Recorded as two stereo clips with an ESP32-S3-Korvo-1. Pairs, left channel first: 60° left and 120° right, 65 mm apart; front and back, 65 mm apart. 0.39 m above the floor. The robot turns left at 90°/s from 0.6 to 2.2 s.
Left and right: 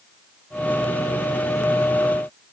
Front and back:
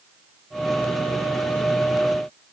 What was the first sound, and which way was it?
Only background noise.